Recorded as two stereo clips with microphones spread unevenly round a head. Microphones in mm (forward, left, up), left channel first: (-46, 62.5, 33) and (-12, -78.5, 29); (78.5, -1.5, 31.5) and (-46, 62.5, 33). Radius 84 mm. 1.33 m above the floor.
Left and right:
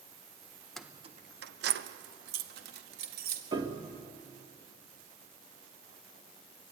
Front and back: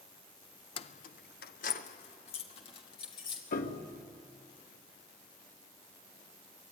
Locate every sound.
0.8 s keys jangling: 15° left, 0.5 m; by 3.4 s 90° right, 2.5 m
3.5 s a piano: 15° right, 1.6 m